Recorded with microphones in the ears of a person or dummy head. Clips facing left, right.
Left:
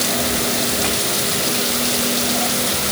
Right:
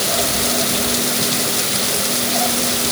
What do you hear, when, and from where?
Only background noise.